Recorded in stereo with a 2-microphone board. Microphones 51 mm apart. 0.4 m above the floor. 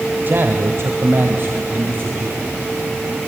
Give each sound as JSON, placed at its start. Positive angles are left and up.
{"t": 0.2, "sound": "a man speaking", "side_deg": -45, "distance_m": 1.6}